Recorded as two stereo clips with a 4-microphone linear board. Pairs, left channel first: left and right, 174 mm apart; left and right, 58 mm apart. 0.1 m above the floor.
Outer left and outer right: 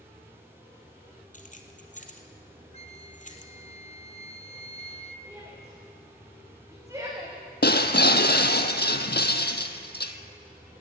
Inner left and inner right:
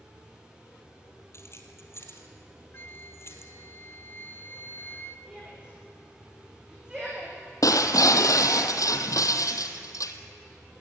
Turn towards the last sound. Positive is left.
turn(degrees=70)  # may be behind; listen again after turning